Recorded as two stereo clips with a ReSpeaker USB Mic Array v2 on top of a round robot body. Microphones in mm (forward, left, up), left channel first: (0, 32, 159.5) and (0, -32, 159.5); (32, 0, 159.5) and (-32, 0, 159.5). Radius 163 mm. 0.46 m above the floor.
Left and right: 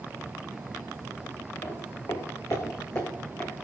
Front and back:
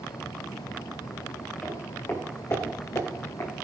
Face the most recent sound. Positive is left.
turn(degrees=30)